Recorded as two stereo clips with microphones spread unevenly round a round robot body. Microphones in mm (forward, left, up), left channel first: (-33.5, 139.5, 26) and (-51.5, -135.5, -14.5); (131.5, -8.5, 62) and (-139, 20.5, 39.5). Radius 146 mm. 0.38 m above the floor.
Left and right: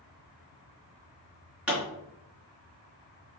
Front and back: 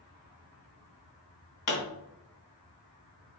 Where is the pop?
10° right, 3 m.